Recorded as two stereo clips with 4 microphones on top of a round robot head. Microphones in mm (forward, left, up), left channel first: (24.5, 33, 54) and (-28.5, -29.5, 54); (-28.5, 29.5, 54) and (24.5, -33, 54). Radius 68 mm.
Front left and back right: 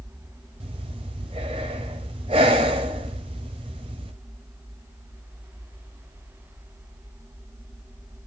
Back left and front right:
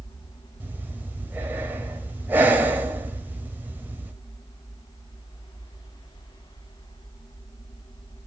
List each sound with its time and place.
0.6 s breathing: 115° right, 1.1 m